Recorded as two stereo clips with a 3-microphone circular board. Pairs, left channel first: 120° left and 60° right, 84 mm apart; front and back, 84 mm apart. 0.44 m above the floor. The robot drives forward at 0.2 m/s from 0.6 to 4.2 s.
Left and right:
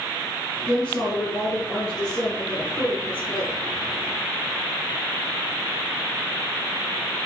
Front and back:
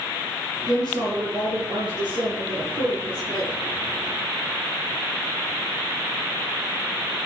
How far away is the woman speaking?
About 5 m.